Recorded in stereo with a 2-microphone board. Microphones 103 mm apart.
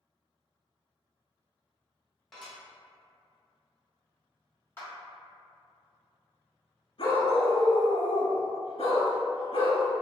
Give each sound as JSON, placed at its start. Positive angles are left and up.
{"t": 2.3, "sound": "dishes clattering", "side_deg": 5, "distance_m": 1.2}
{"t": 4.8, "sound": "a clap", "side_deg": 25, "distance_m": 1.3}
{"t": 7.0, "sound": "a dog barking", "side_deg": 65, "distance_m": 1.3}